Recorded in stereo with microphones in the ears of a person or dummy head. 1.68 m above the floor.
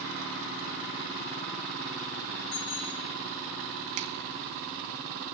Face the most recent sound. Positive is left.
turn(degrees=-40)  # may be behind; listen again after turning